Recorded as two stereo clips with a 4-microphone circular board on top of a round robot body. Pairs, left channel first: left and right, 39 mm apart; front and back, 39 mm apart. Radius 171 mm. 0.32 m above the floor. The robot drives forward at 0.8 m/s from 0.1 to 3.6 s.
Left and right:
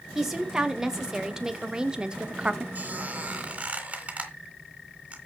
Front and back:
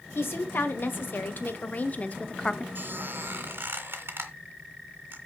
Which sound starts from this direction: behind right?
A squeak, at 2.8 s.